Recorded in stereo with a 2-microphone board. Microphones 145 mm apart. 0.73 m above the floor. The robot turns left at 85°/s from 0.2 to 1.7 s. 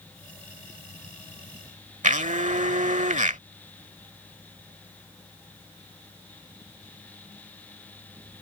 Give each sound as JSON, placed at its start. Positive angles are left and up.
{"t": 2.0, "sound": "a blender", "side_deg": -60}